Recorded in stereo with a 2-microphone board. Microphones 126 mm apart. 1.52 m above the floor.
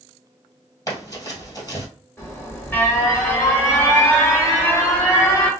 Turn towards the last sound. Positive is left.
turn(degrees=15)  # may be behind; listen again after turning